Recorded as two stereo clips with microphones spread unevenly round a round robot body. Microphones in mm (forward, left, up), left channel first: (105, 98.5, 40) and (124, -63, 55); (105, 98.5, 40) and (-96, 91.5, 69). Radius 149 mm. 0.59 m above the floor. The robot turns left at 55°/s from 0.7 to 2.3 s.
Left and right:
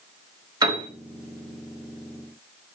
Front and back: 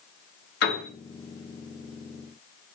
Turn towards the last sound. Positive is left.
turn(degrees=-105)